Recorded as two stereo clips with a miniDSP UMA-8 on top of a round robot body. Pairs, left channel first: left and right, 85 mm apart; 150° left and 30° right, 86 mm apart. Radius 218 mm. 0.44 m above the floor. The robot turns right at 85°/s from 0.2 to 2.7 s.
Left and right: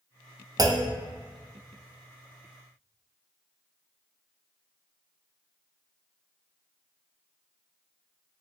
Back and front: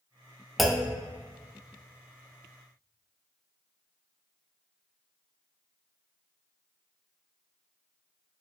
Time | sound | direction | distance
0.6 | a clunk | 120° right | 0.6 m